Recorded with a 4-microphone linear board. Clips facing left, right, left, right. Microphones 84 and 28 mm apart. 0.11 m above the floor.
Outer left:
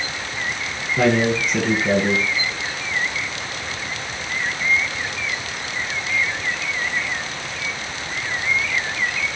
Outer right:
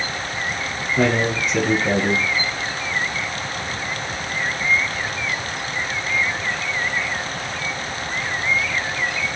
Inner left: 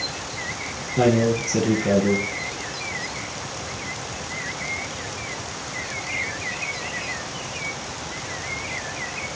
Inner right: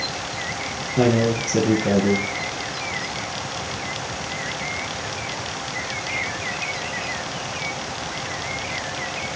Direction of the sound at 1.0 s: 5° right (ahead or behind).